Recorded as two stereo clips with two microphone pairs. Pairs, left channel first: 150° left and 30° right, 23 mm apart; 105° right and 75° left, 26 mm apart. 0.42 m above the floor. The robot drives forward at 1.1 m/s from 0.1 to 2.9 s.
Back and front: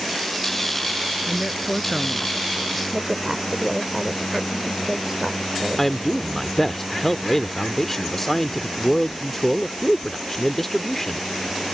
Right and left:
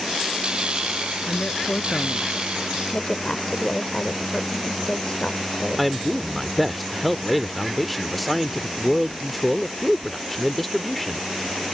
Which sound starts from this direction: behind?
A man speaking, at 5.8 s.